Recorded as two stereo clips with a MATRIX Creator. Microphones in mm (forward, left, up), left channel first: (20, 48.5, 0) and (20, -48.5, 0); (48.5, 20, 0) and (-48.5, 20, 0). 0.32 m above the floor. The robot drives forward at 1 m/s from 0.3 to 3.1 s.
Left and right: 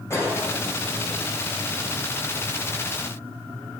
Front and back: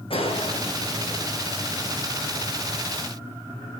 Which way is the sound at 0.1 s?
25° left.